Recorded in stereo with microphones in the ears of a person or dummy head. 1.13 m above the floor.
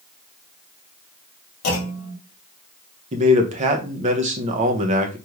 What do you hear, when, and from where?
1.6 s a clunk: 60° left (ahead or behind), 1.3 m
3.1 s a man speaking: 40° right (ahead or behind), 0.6 m